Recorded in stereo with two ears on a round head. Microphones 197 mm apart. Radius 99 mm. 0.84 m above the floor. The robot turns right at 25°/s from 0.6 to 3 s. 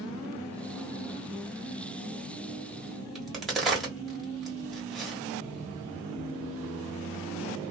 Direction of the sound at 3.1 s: Centre (ahead or behind).